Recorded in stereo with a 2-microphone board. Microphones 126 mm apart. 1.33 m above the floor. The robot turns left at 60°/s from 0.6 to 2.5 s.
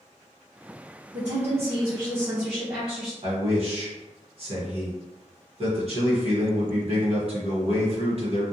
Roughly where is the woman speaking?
Right.